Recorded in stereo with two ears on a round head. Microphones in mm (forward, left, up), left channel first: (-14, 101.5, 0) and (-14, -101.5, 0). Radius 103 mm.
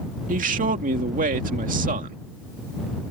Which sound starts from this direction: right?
A man speaking, at 0.3 s.